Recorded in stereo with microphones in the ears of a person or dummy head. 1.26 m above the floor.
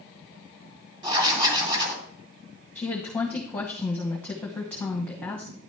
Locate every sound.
1.0 s writing: 25° right (ahead or behind), 2 m
2.8 s a woman speaking: 10° left (ahead or behind), 1.2 m